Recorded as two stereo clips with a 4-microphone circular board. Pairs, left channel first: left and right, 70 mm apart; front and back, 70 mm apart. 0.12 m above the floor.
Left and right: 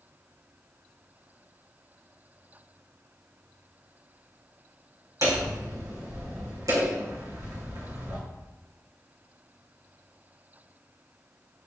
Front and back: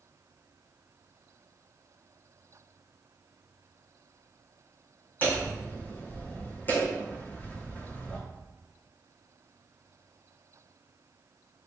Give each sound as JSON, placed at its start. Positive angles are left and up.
{"t": 5.2, "sound": "hammering", "azimuth_deg": -65, "distance_m": 4.0}